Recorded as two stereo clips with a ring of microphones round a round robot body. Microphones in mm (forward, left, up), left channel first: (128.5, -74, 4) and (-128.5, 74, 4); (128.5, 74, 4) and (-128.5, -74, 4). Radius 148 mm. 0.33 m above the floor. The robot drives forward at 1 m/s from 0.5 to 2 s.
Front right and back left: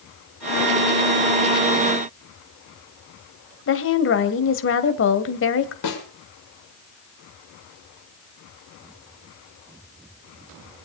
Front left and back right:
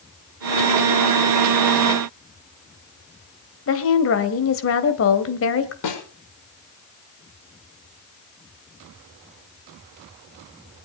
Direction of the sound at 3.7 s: 5° left.